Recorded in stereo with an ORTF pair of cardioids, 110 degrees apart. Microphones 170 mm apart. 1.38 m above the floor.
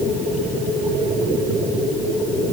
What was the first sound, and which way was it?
Only background noise.